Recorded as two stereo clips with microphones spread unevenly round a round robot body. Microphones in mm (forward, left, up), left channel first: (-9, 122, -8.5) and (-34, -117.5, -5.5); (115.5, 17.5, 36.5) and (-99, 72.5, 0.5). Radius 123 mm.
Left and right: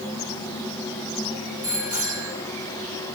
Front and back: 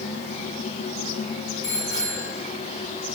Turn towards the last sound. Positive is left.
turn(degrees=-95)